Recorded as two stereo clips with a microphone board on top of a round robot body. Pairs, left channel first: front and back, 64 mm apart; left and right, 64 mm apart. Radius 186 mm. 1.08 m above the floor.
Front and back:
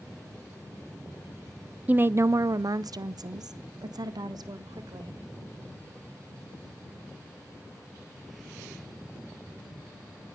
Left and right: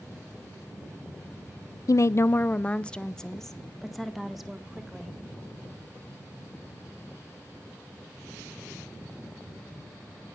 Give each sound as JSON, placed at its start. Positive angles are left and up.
{"t": 1.9, "sound": "a woman speaking", "azimuth_deg": 115, "distance_m": 0.5}